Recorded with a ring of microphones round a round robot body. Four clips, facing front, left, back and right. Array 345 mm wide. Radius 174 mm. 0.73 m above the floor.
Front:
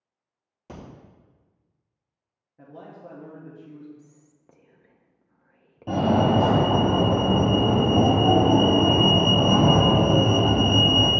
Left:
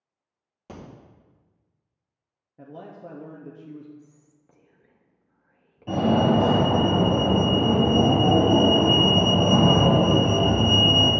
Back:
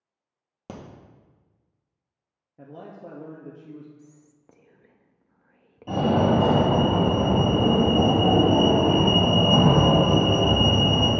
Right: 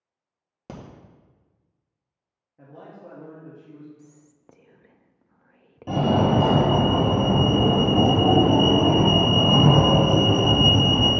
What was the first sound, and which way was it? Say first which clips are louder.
A crack: right 2 dB, back 2 dB; 145° right.